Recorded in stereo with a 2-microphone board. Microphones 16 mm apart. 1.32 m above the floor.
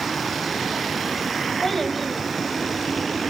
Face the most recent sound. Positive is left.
turn(degrees=15)  # may be behind; listen again after turning